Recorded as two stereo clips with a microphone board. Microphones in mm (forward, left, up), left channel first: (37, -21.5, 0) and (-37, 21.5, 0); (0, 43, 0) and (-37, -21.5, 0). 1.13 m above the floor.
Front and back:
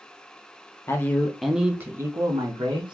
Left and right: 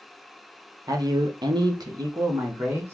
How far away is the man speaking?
About 0.8 m.